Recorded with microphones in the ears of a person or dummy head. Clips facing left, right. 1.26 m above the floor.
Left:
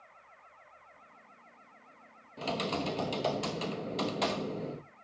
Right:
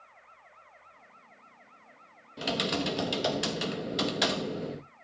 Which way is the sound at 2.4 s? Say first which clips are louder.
Right 3 dB; 15° right (ahead or behind).